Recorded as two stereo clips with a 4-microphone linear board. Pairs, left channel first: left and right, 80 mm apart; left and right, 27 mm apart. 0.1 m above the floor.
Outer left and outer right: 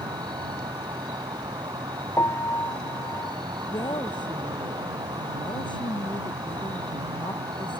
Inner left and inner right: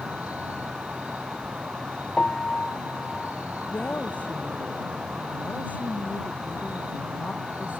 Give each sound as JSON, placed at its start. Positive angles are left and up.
{"t": 0.0, "sound": "an insect", "side_deg": -65}
{"t": 2.2, "sound": "a piano", "side_deg": 40}
{"t": 3.7, "sound": "a woman speaking", "side_deg": 75}